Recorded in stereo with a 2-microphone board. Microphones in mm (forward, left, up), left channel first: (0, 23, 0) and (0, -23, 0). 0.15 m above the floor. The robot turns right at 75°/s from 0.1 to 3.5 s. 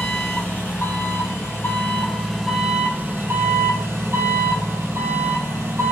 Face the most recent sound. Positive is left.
turn(degrees=-110)